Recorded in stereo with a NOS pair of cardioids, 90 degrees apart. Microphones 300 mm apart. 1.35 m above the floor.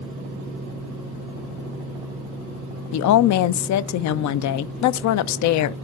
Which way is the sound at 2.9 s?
70° left.